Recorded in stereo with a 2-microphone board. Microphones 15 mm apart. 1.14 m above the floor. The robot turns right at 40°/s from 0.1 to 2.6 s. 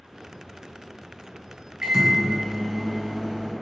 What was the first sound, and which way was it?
A microwave, 140° right.